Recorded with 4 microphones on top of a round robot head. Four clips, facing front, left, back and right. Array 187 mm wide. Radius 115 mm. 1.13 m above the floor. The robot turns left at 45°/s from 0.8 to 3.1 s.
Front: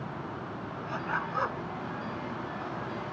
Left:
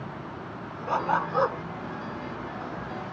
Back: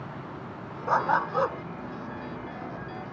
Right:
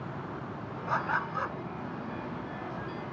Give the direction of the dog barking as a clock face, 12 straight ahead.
7 o'clock.